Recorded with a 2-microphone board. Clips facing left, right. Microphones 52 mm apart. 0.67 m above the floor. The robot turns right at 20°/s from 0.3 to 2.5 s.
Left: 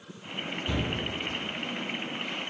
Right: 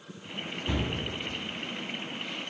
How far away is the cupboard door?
About 1.8 m.